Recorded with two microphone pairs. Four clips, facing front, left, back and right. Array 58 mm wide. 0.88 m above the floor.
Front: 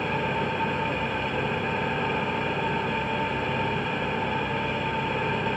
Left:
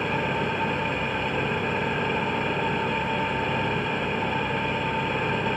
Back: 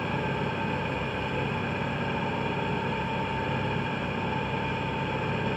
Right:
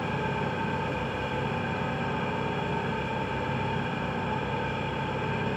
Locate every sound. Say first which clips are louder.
0.0 s an engine running: left 4 dB, front 3 dB; 60° left, 6 m